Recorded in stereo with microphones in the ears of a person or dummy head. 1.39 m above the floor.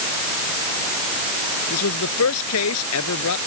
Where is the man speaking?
85° left.